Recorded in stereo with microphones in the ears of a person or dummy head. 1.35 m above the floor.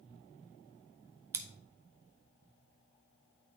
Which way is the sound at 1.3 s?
20° right (ahead or behind).